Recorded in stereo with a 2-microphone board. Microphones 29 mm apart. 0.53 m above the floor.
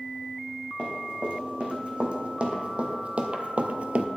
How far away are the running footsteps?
About 3 m.